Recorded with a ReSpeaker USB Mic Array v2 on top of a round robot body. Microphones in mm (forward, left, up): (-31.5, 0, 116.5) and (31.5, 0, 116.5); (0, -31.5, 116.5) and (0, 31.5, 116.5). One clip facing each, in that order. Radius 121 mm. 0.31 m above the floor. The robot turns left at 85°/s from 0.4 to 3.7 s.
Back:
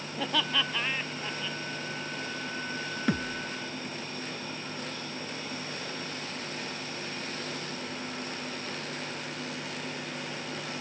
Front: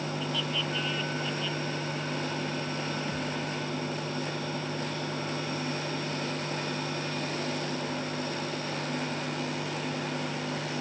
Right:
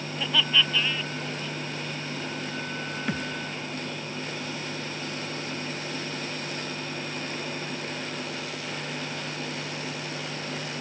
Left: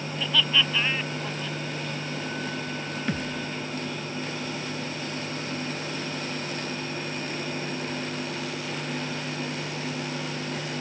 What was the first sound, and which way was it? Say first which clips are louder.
Laughter: back 7 dB, even; 170° right.